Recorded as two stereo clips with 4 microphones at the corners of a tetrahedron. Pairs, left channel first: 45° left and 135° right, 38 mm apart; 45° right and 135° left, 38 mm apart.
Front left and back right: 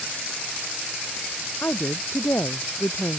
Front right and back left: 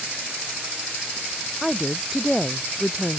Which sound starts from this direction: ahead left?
A woman speaking, at 1.6 s.